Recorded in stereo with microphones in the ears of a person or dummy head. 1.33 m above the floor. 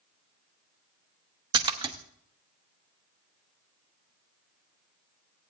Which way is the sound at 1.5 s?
25° right (ahead or behind).